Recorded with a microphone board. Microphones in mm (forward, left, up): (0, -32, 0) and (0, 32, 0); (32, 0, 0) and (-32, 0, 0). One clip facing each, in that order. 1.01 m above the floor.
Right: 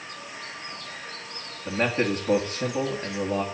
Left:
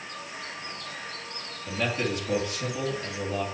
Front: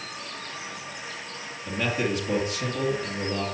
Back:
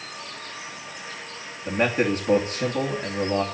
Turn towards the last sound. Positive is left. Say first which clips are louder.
# right 4 dB, back 5 dB
turn(degrees=-140)